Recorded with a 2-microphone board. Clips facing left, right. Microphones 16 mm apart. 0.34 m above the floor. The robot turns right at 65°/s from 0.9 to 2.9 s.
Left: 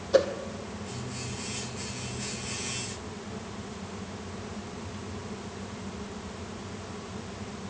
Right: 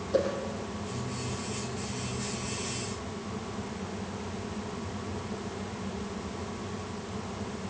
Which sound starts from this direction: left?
A whoosh, at 0.1 s.